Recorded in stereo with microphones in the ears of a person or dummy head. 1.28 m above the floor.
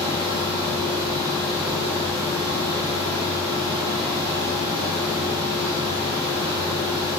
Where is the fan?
25° right (ahead or behind), 3.5 m.